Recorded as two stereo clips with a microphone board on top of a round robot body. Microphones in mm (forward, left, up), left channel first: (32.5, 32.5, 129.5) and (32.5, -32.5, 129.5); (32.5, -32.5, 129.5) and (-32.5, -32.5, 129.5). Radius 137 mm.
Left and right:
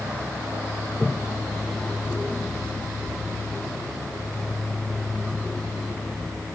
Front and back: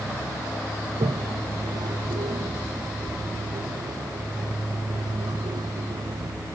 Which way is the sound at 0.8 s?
175° left.